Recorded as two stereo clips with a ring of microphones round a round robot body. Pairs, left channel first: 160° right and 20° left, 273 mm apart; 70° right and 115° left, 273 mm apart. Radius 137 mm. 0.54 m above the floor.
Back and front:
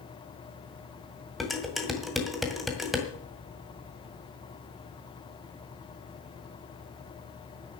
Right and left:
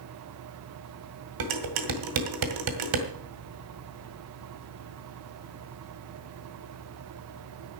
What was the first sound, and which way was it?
Dishes clattering, 110° left.